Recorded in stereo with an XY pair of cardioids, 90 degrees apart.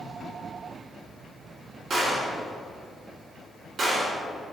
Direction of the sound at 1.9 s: 55° right.